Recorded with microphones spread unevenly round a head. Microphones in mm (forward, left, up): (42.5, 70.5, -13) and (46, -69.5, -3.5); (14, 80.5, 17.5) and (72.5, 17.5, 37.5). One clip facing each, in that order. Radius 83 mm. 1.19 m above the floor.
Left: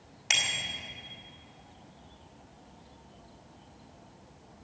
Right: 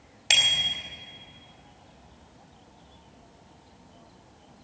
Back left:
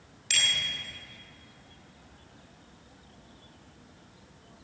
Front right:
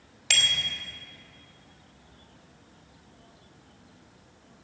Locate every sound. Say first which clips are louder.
0.3 s a bicycle bell: right 3 dB, front right 2 dB; 35° right, 4 m